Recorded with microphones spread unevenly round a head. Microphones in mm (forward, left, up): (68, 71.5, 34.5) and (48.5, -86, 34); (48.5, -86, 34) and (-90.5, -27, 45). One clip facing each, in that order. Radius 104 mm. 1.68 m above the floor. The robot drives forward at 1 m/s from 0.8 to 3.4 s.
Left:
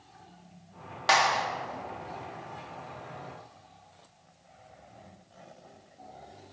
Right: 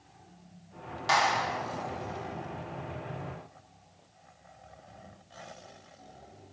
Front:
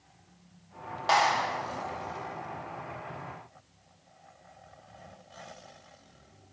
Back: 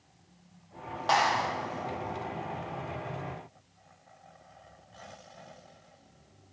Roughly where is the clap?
Ahead left.